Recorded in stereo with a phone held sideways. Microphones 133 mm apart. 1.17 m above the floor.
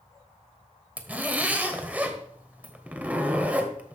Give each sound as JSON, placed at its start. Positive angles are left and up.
{"t": 1.0, "sound": "a zipper", "side_deg": -10, "distance_m": 1.2}